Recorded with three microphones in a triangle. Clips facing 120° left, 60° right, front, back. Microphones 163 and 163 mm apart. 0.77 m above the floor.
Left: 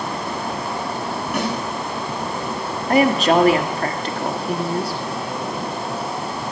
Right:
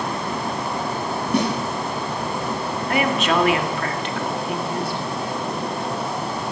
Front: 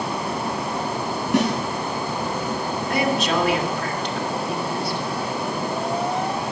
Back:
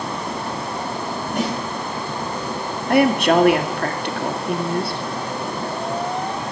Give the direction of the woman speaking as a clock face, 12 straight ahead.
6 o'clock.